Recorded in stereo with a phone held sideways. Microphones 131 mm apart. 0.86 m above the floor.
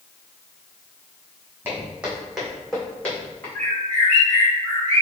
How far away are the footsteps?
About 1.9 m.